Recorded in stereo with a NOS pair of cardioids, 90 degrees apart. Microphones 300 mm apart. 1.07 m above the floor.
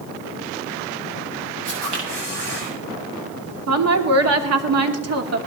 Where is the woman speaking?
50° right, 2.5 m.